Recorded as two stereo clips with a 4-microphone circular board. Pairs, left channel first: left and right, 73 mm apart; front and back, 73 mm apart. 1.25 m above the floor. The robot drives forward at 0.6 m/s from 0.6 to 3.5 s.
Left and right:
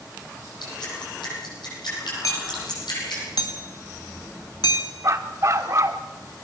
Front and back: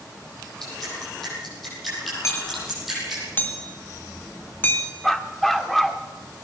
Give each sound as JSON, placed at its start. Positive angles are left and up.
{"t": 0.6, "sound": "dripping", "azimuth_deg": 85, "distance_m": 9.5}
{"t": 2.2, "sound": "hammering", "azimuth_deg": 50, "distance_m": 2.5}
{"t": 5.0, "sound": "a dog barking", "azimuth_deg": -85, "distance_m": 1.0}